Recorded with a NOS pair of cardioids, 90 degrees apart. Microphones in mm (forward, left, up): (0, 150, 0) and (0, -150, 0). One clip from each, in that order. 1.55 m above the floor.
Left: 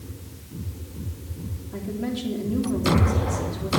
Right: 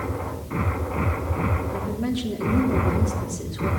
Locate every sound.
1.7 s a woman speaking: 10° right, 3 m